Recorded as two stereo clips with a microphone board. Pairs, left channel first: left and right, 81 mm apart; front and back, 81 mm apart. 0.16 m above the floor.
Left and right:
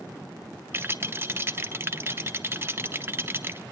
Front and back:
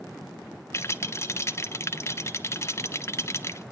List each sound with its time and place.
0.7 s a rattle: 40° right, 0.7 m